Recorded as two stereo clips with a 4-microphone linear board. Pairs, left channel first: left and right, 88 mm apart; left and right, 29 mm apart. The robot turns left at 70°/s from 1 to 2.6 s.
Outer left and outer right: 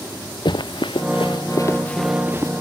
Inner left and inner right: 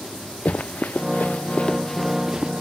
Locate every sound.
0.5 s running footsteps: 60° left (ahead or behind); by 2.5 s 40° right (ahead or behind)